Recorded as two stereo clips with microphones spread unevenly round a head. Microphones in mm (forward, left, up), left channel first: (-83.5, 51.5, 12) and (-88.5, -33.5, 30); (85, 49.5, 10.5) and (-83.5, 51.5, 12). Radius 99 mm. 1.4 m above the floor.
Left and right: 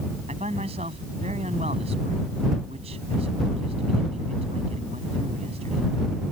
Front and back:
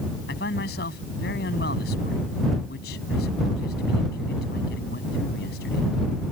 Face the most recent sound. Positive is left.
turn(degrees=-50)